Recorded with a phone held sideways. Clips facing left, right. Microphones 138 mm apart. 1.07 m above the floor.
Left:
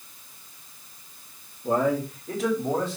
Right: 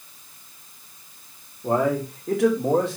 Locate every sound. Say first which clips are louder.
1.6 s a man speaking: right 2 dB; 80° right, 3.5 m; by 3.0 s 70° right (ahead or behind), 3.5 m